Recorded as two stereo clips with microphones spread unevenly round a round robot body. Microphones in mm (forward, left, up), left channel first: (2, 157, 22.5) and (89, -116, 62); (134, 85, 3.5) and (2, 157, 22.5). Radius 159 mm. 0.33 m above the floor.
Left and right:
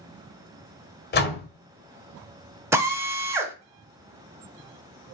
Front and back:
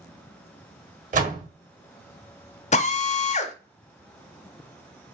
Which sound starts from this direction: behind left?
A door slam, at 1.1 s.